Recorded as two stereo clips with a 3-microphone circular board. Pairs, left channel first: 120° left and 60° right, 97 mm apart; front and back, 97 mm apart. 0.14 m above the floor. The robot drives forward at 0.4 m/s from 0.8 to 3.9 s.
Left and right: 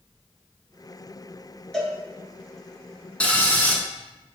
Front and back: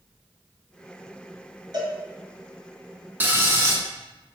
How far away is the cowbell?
About 1.1 m.